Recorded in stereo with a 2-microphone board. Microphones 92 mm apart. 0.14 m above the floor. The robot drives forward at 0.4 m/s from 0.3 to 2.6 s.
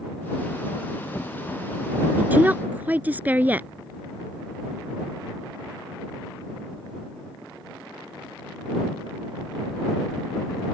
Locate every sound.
2.2 s a woman speaking: 20° right (ahead or behind)